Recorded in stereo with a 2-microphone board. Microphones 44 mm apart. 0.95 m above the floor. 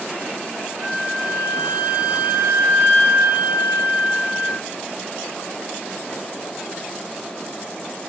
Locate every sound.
0.8 s a flute: 35° right (ahead or behind), 2 m